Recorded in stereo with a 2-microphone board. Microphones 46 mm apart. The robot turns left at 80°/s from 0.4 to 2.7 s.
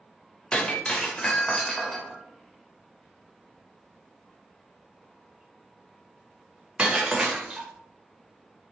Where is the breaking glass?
20° left (ahead or behind), 0.6 m; by 7.7 s 20° right (ahead or behind), 0.6 m.